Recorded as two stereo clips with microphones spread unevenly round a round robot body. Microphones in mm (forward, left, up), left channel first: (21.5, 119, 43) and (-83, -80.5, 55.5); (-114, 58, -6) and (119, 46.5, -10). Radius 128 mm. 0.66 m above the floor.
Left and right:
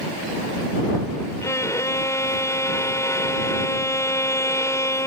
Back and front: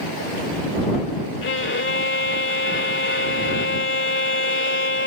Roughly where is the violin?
Behind left.